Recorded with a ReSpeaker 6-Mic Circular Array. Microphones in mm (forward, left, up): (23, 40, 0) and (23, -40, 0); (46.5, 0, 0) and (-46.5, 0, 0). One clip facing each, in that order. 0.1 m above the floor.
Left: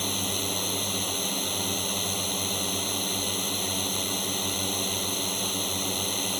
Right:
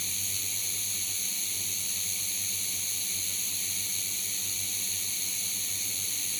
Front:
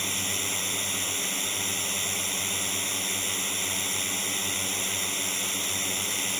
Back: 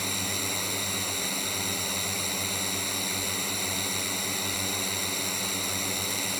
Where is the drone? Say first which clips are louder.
Left 14 dB, back 1 dB; 95° left.